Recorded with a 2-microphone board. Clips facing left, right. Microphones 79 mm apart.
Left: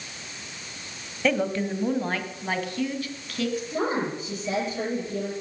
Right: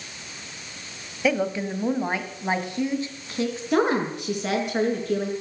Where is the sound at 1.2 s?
5° right (ahead or behind), 1.6 m; by 3.6 s 25° right (ahead or behind), 2.5 m.